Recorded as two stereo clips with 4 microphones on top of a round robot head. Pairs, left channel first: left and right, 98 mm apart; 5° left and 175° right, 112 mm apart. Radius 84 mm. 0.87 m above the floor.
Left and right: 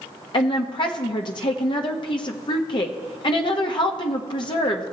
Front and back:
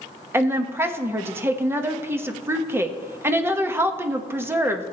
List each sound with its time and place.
0.3 s a woman speaking: 120° left, 1.1 m